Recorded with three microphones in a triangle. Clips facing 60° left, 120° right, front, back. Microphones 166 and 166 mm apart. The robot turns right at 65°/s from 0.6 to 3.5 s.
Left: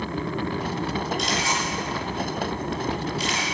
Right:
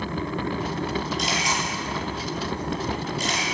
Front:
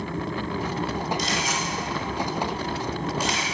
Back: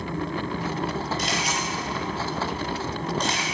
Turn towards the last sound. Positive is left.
turn(degrees=-60)